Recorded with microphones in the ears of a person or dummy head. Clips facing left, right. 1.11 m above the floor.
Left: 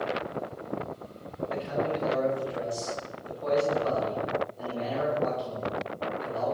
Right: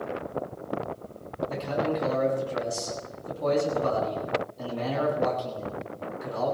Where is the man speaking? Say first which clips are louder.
Right 1 dB; 60° right (ahead or behind), 9 m.